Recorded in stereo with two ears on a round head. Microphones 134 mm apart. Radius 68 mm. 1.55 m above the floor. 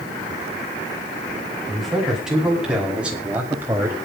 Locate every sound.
1.7 s a man speaking: centre (ahead or behind), 7 m; by 4.0 s 20° right (ahead or behind), 3.5 m